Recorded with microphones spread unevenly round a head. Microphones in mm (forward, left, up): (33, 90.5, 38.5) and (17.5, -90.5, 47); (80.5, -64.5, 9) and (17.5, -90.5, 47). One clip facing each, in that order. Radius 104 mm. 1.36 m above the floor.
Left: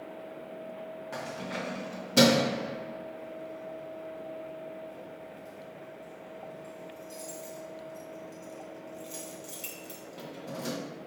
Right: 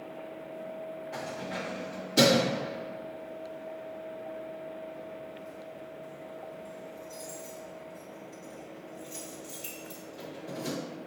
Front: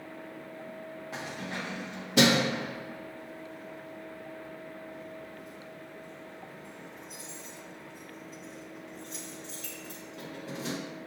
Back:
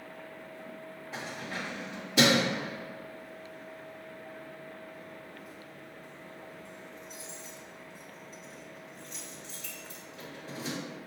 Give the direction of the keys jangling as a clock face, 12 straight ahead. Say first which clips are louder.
Left 1 dB, even; 10 o'clock.